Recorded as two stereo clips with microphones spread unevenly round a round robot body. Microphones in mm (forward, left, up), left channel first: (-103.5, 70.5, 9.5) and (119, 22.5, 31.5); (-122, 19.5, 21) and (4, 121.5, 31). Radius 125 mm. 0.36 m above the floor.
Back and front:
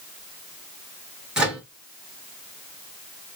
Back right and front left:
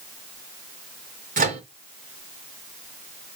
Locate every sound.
1.4 s a microwave: 75° left, 4.5 m